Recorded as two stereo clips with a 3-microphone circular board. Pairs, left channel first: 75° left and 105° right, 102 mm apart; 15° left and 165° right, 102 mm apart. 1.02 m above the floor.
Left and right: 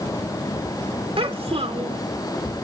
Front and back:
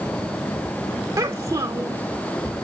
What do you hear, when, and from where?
1.2 s a child speaking: 125° right, 0.6 m